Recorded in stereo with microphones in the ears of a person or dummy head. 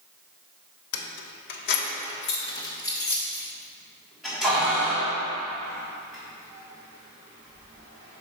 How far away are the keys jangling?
About 0.8 m.